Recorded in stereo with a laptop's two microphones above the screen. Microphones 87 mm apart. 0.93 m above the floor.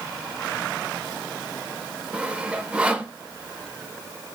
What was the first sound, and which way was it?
Sawing, 10° right (ahead or behind).